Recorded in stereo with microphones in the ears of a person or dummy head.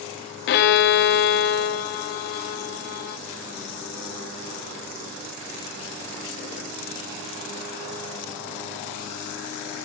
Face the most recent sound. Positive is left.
turn(degrees=60)  # may be behind; listen again after turning